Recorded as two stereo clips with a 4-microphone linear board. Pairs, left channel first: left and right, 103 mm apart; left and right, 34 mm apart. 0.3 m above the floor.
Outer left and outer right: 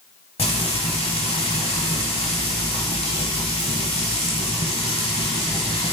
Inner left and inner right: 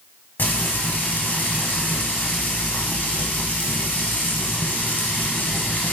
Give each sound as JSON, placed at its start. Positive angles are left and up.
{"t": 0.4, "sound": "frying", "side_deg": 70, "distance_m": 0.7}